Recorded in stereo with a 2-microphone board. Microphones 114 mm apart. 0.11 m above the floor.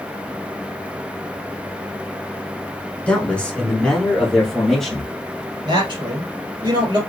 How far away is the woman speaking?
About 1.7 m.